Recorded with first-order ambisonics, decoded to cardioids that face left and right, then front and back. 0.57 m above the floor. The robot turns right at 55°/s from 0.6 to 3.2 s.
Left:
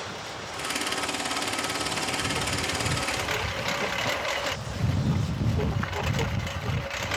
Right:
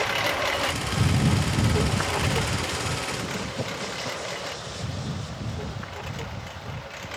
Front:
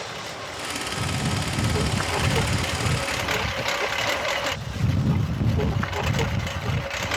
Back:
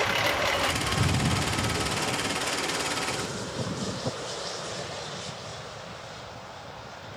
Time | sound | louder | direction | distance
0.0 | a lawn mower | right 11 dB, back 8 dB | 125° right | ?